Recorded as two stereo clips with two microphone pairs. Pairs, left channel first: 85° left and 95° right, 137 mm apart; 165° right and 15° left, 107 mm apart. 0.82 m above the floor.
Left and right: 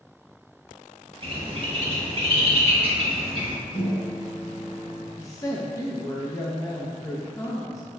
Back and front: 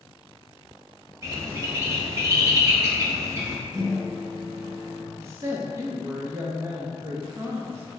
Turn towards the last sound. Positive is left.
turn(degrees=60)